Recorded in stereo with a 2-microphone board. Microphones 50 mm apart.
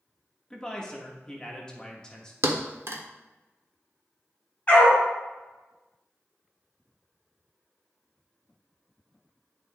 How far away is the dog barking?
About 2.5 m.